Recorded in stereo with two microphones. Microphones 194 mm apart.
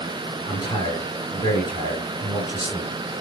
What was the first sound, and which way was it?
A man speaking, 25° left (ahead or behind).